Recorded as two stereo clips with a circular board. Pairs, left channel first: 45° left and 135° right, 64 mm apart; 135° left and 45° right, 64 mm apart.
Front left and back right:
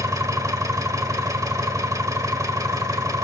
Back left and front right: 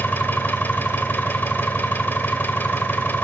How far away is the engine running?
About 1.3 m.